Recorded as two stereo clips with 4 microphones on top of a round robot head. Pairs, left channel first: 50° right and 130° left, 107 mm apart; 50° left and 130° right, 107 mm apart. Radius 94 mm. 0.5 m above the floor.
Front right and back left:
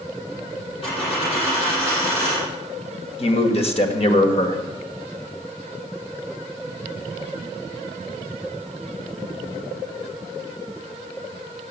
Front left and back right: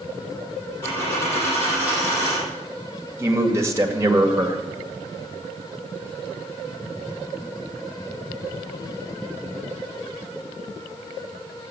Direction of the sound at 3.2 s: 65° right.